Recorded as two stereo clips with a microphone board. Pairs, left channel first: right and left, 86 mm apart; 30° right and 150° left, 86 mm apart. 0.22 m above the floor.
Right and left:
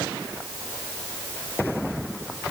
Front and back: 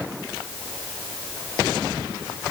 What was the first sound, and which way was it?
Only background noise.